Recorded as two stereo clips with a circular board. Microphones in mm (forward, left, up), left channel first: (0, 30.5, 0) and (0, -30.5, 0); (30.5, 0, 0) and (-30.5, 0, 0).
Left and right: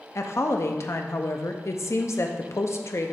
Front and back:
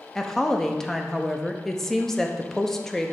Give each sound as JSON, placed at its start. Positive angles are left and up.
{"t": 0.1, "sound": "a woman speaking", "azimuth_deg": 80, "distance_m": 0.6}